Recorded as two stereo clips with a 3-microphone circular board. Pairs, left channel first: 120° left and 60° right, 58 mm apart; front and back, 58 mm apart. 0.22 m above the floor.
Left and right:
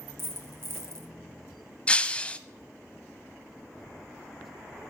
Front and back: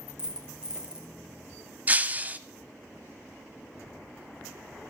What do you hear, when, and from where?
0.2 s a dropped coin: 105° right, 1.0 m
1.9 s breaking glass: 165° left, 0.5 m